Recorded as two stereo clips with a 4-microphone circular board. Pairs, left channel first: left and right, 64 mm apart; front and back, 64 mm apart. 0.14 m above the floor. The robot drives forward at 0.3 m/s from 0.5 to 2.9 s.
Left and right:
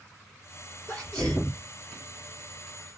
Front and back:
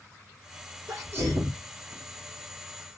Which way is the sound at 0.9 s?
155° left.